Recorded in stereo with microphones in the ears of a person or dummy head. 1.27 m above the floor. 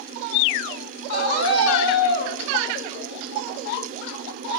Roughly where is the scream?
Left.